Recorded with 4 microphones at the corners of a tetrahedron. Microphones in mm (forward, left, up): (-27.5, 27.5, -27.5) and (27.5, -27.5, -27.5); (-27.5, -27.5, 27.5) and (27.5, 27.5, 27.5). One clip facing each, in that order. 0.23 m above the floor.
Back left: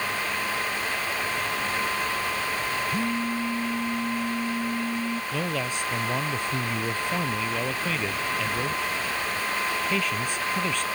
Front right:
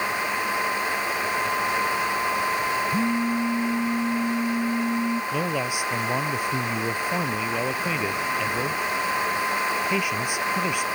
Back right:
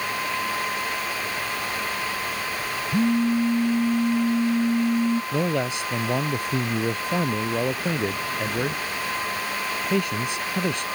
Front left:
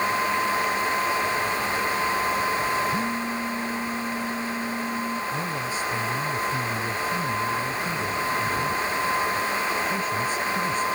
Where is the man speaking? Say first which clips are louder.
Front right 3 dB, back right 4 dB; 120° right.